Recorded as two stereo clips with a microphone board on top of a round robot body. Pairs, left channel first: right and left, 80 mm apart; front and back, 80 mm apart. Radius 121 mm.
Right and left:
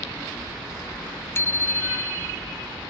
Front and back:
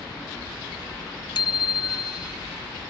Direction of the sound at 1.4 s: 30° right.